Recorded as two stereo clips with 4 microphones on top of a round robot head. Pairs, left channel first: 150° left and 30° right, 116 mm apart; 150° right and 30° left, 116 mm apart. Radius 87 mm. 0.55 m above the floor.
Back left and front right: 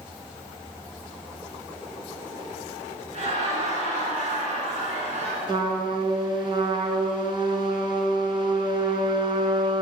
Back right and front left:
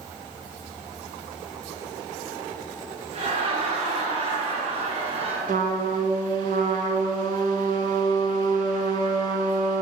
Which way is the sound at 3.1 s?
5° right.